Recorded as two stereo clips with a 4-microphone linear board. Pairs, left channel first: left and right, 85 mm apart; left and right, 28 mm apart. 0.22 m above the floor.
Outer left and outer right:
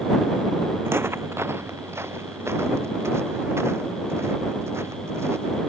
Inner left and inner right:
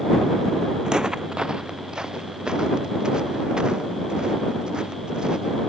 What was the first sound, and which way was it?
Footsteps, 30° right (ahead or behind).